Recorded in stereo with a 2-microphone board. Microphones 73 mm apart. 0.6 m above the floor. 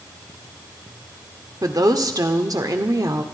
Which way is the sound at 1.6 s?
60° right (ahead or behind).